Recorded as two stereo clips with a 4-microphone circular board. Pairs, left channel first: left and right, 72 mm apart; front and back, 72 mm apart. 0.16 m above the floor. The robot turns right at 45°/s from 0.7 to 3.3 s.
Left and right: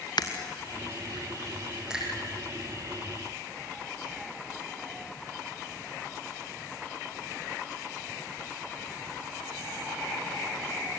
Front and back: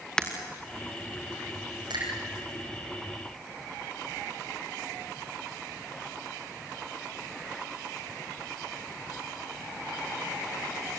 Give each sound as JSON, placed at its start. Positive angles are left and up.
{"t": 0.2, "sound": "breaking glass", "azimuth_deg": 80, "distance_m": 2.5}
{"t": 1.9, "sound": "a finger snap", "azimuth_deg": -170, "distance_m": 7.5}